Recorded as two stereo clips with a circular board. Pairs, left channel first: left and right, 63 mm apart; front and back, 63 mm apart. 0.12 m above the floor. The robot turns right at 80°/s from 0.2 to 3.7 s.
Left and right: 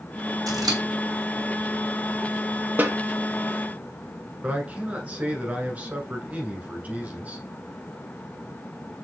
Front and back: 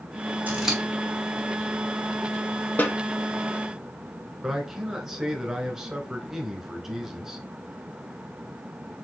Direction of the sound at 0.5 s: 115° right.